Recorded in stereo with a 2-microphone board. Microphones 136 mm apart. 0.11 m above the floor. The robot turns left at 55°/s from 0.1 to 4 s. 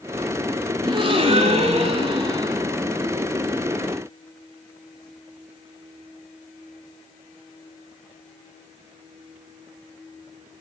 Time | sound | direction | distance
0.8 | a gasp | 50° right | 0.6 m